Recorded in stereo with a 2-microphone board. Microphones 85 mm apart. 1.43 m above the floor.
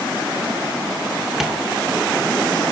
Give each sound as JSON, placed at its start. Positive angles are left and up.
{"t": 1.4, "sound": "tapping", "side_deg": -5, "distance_m": 0.7}